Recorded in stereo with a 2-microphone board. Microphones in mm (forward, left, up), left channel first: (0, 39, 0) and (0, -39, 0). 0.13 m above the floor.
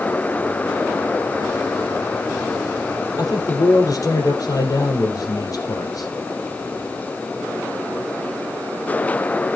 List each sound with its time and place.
3.2 s a man speaking: 50° left (ahead or behind), 4 m